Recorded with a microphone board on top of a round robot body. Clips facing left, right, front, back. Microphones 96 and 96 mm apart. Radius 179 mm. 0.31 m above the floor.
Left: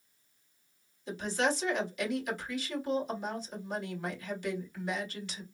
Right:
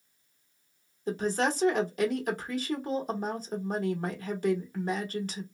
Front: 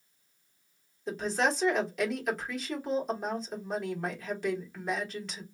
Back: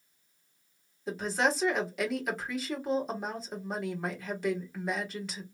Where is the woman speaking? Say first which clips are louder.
Right 3 dB, even; 95° right, 1.8 m.